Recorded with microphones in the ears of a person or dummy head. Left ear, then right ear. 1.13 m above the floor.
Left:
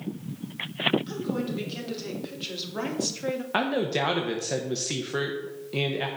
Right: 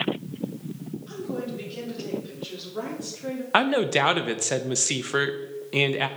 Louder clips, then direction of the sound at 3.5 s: Right 6 dB; 40° right (ahead or behind).